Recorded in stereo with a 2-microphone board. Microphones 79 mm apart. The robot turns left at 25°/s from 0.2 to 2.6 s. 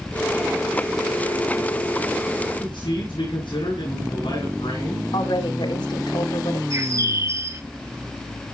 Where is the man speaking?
85° left, 7.5 m.